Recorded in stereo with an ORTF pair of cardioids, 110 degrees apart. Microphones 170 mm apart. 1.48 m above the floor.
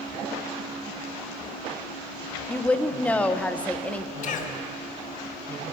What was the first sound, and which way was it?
A woman speaking, 10° left.